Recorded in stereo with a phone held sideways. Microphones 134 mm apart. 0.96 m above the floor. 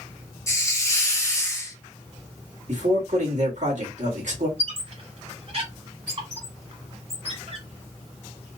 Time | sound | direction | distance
0.5 | a hiss | 25° left (ahead or behind) | 0.9 m
2.7 | a man speaking | 70° right (ahead or behind) | 1.7 m
4.6 | a squeak | 50° right (ahead or behind) | 1.3 m